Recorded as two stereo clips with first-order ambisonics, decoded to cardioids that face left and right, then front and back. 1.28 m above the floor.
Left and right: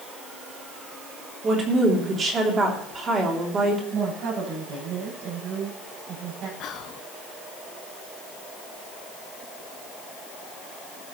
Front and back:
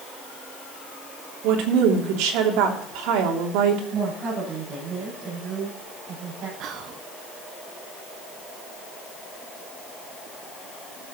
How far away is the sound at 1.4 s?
About 3 m.